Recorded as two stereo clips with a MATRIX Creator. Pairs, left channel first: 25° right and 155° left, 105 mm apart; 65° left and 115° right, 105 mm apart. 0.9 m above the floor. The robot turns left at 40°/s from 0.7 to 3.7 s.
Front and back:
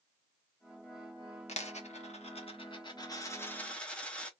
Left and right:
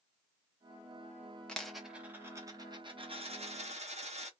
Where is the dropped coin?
15° right, 0.7 m; by 4.3 s 100° right, 0.7 m.